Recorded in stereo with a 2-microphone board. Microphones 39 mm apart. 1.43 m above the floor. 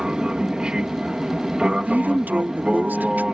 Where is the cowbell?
I don't hear a cowbell.